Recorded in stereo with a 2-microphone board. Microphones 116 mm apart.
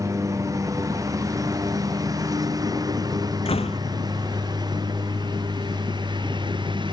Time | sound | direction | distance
0.0 | a lawn mower | 25° right (ahead or behind) | ?
3.5 | a door slam | 55° left (ahead or behind) | ?